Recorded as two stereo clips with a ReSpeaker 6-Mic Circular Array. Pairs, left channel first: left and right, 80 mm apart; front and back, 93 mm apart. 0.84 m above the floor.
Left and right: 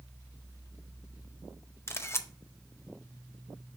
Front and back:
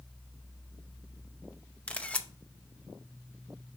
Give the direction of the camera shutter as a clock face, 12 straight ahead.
10 o'clock.